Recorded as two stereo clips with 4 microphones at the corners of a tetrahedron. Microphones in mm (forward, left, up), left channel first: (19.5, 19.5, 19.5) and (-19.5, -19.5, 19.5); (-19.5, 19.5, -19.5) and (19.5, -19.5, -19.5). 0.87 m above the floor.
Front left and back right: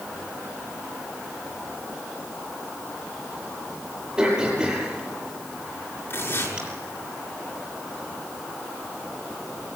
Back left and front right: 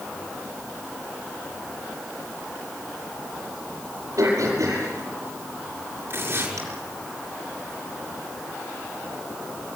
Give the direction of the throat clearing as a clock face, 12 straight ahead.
2 o'clock.